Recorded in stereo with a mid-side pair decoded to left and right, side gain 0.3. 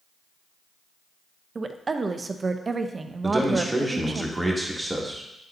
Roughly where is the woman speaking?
Ahead right.